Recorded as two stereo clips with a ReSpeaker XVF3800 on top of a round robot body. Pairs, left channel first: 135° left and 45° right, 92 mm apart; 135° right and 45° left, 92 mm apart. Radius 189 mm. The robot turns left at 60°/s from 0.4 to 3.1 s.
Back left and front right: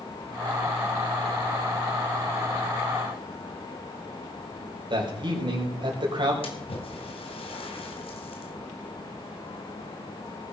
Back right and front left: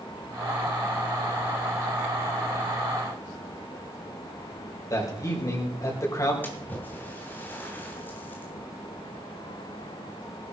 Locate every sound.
4.9 s a man speaking: 80° right, 4.5 m
6.4 s a splash: 155° left, 2.5 m